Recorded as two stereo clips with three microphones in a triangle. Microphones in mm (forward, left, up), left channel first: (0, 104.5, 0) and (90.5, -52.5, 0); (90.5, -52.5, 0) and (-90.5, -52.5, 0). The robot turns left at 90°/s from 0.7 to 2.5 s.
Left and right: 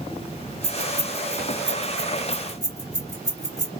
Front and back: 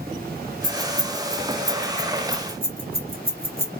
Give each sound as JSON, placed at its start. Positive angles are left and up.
{"t": 0.6, "sound": "keys jangling", "azimuth_deg": -35, "distance_m": 1.0}